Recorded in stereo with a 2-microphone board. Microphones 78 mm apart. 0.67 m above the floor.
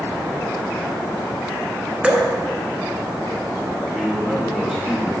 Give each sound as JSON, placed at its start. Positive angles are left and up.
{"t": 2.0, "sound": "dripping", "side_deg": -15, "distance_m": 1.1}
{"t": 3.9, "sound": "a man speaking", "side_deg": -10, "distance_m": 2.5}